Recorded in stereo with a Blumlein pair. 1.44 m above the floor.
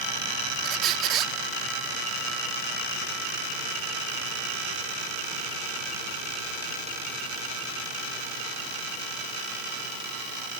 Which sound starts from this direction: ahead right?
A squeak, at 0.6 s.